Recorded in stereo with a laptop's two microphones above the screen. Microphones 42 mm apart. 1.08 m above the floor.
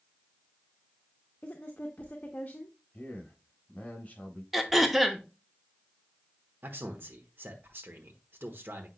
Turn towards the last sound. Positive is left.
turn(degrees=-55)  # may be behind; listen again after turning